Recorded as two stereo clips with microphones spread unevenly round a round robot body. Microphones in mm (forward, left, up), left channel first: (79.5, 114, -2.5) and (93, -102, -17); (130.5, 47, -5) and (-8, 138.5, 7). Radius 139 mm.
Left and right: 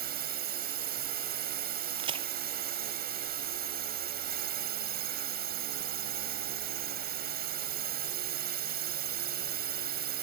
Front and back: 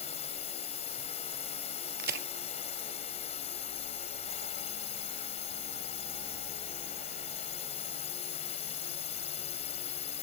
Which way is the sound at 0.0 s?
75° right.